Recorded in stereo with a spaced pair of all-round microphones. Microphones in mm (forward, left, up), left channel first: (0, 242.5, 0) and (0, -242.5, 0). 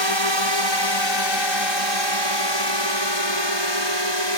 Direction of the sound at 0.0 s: 65° left (ahead or behind).